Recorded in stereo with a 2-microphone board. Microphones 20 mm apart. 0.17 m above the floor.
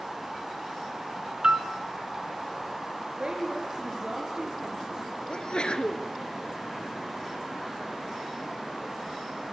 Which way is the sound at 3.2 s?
45° right (ahead or behind).